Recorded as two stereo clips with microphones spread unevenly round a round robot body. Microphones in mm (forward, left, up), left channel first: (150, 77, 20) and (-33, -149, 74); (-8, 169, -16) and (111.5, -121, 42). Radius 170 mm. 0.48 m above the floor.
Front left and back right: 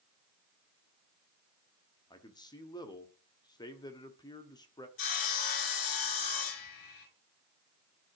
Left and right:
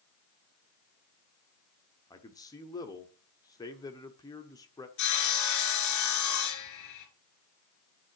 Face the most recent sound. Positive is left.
turn(degrees=80)